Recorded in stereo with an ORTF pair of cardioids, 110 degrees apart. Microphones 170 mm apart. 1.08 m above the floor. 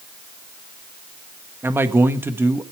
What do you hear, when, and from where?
1.6 s a man speaking: 15° right, 1.3 m